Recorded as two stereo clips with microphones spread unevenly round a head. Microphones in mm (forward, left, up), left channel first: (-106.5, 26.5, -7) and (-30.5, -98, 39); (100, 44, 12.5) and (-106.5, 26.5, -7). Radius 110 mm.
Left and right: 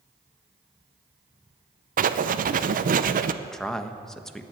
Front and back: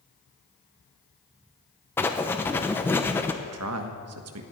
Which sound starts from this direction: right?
Writing, at 2.0 s.